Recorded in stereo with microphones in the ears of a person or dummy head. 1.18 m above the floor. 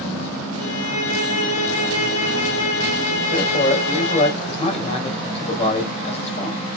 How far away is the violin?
About 5.5 m.